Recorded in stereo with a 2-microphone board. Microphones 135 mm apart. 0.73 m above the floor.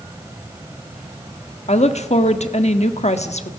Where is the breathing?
I don't hear breathing.